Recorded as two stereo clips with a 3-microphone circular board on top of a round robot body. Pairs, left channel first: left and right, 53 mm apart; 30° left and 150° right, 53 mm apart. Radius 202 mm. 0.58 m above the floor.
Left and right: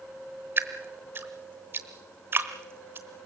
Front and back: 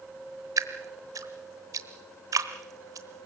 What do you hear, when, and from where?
0.6 s dripping: 135° right, 1.0 m